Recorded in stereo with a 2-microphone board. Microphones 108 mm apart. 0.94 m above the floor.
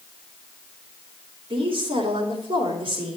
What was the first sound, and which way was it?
A woman speaking, 60° right (ahead or behind).